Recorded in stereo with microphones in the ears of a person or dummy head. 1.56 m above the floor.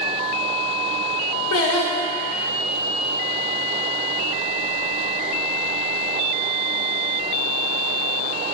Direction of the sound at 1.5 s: 75° left (ahead or behind).